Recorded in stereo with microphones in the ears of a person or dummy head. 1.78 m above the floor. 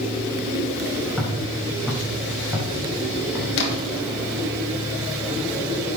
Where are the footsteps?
5° right (ahead or behind), 7 m; by 3.5 s 20° right (ahead or behind), 4.5 m.